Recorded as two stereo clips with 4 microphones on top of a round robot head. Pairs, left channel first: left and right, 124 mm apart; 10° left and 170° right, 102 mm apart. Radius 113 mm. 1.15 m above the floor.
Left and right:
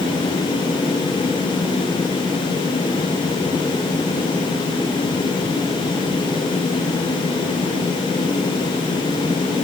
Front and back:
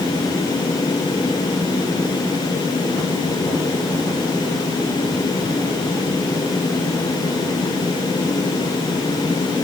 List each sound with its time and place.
Only background noise.